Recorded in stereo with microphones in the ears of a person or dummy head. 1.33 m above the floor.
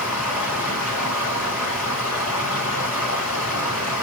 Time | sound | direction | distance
0.0 | running water | 5° right (ahead or behind) | 4.5 m